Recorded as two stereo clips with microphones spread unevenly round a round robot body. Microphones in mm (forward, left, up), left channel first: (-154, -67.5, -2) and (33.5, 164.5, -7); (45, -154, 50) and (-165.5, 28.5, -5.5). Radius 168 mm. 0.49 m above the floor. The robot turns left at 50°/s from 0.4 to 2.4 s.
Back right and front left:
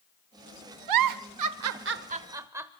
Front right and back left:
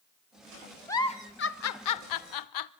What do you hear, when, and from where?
0.9 s a giggle: 45° left, 0.8 m; by 2.7 s 30° right, 0.8 m